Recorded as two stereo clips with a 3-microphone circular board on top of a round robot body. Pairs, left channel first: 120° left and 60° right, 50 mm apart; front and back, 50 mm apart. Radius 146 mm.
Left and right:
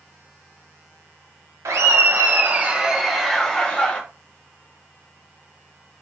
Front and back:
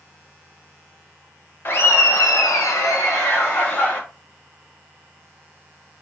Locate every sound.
1.6 s laughter: 40° right, 0.9 m; by 4.0 s 45° left, 1.5 m